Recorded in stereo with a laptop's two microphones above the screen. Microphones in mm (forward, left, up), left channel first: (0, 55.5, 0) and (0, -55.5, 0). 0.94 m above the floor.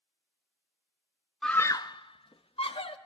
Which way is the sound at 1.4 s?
5° left (ahead or behind).